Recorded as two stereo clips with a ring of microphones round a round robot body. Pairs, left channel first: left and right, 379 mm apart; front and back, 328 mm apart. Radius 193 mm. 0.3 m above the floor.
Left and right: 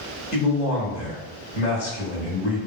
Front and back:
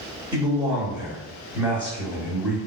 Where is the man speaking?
115° left, 1.1 m.